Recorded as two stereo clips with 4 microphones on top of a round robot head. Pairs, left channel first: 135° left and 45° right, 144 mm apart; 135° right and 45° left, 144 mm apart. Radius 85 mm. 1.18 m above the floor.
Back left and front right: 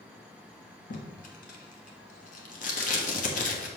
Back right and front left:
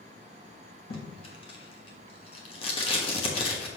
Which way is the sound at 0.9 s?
170° left.